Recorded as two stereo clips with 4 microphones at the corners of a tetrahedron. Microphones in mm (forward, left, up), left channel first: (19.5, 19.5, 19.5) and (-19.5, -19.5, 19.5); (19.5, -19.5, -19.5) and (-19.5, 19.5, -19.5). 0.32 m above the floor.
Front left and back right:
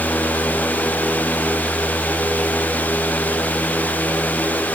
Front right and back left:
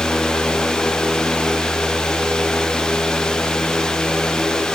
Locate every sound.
Only background noise.